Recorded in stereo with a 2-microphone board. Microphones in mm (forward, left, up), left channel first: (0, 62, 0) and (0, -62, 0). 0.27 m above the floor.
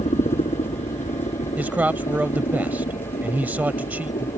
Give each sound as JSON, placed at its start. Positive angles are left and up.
{"t": 0.0, "sound": "a helicopter", "side_deg": 65}
{"t": 1.6, "sound": "a man speaking", "side_deg": -15}